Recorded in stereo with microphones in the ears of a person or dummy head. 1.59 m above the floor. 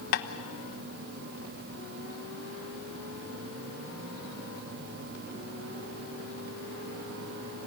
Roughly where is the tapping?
Left.